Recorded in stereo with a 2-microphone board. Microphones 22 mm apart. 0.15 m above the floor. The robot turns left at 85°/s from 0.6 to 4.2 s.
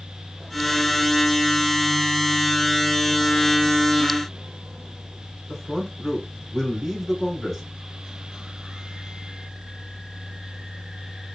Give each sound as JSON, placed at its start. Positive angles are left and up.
{"t": 5.5, "sound": "a man speaking", "side_deg": 0, "distance_m": 1.7}